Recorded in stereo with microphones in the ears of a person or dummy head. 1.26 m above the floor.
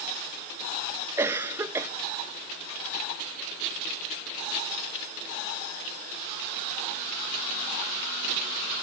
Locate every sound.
1.2 s a cough: 15° right (ahead or behind), 0.9 m